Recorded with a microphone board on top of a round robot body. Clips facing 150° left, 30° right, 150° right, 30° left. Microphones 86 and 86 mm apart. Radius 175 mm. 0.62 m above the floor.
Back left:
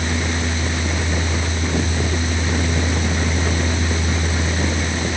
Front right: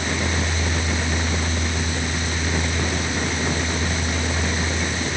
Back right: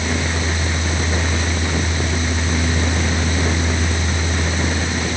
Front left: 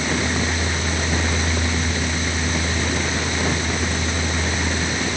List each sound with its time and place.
Only background noise.